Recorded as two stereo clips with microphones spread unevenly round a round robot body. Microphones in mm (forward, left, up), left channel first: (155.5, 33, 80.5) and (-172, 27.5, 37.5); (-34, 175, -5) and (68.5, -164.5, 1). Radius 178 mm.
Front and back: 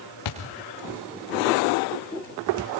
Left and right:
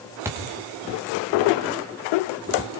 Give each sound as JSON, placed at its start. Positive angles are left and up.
{"t": 0.2, "sound": "a thud", "azimuth_deg": 10, "distance_m": 6.0}